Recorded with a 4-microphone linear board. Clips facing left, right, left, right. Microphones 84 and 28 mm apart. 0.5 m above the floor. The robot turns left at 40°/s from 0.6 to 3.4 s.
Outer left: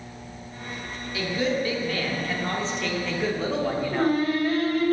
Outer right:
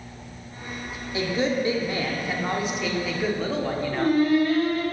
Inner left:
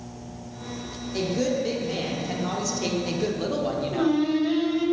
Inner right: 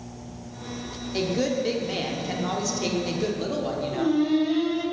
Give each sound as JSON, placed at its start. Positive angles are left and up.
{"t": 1.1, "sound": "a woman speaking", "side_deg": -25, "distance_m": 0.7}
{"t": 3.9, "sound": "singing", "side_deg": 30, "distance_m": 2.0}